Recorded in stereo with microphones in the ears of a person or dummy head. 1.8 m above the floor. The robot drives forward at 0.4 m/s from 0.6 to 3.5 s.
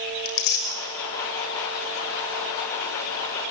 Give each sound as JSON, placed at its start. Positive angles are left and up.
{"t": 0.2, "sound": "tearing paper", "side_deg": 65, "distance_m": 6.5}